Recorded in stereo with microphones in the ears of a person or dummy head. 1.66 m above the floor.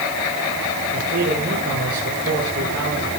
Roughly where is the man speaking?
Right.